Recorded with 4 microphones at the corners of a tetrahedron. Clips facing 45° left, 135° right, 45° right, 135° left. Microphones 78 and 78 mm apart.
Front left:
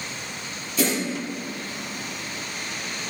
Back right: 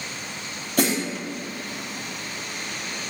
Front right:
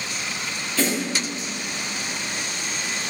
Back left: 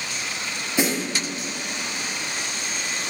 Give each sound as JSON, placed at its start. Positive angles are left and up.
{"t": 0.8, "sound": "a snare drum", "azimuth_deg": -155, "distance_m": 3.5}